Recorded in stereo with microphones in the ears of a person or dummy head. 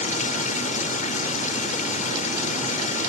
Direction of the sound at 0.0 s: 45° left (ahead or behind).